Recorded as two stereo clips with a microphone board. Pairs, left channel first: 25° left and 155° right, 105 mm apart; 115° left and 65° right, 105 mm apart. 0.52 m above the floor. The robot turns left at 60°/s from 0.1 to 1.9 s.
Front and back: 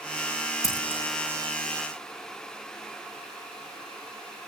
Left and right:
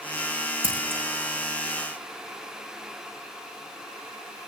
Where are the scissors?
35° right, 7 m; by 1.0 s 55° right, 7 m.